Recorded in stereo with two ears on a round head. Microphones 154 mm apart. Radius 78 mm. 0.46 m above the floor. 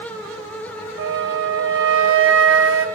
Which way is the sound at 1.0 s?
85° right.